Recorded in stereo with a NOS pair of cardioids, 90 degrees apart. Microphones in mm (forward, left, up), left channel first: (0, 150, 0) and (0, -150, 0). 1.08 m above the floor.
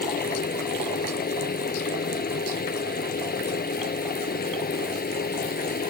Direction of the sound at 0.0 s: 30° left.